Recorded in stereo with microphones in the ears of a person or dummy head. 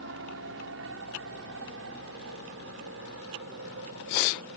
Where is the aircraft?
70° right (ahead or behind).